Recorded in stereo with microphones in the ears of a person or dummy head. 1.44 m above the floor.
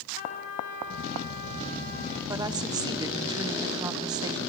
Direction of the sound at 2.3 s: 20° right (ahead or behind).